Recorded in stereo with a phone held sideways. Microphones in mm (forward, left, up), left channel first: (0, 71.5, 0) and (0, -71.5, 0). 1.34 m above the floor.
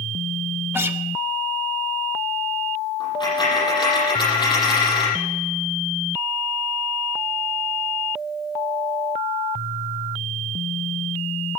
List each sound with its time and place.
0.7 s a guitar: 15° right (ahead or behind), 1.0 m
3.0 s a dropped coin: 35° left (ahead or behind), 8 m